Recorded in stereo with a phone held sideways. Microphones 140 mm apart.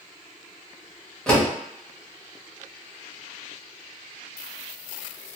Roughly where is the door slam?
Centre.